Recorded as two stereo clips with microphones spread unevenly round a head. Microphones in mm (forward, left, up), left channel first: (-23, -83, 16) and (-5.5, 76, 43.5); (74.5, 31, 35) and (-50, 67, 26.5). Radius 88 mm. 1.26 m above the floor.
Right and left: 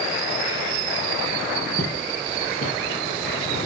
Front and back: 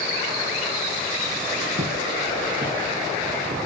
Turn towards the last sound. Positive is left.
turn(degrees=-150)